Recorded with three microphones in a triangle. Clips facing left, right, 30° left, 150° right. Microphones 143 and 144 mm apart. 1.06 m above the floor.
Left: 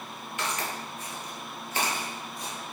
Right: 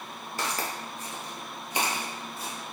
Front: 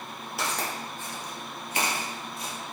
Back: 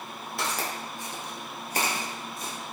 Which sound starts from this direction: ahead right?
Footsteps, at 0.4 s.